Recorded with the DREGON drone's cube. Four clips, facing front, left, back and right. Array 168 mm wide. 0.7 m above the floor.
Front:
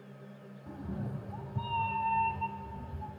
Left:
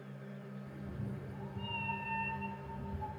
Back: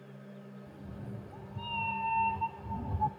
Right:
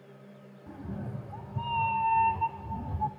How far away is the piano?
I don't hear a piano.